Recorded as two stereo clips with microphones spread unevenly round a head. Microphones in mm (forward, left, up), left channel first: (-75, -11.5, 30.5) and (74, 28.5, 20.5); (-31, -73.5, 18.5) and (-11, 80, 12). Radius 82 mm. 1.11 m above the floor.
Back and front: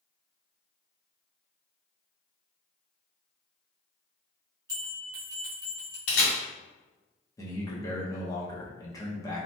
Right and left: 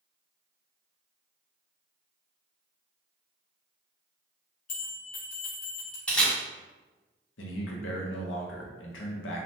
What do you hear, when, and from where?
4.7 s a bell: 55° right, 0.9 m
6.1 s a camera shutter: straight behind, 1.9 m
7.4 s a man speaking: 95° right, 0.7 m